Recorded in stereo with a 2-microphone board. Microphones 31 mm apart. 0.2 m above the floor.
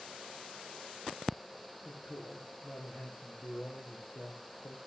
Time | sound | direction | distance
1.9 | a man speaking | 65° left (ahead or behind) | 7.5 m